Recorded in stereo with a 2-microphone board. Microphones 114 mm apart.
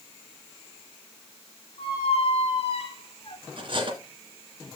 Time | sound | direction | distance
1.8 | a squeak | 55° left (ahead or behind) | 1.8 m
3.6 | cutlery clinking | 45° right (ahead or behind) | 2 m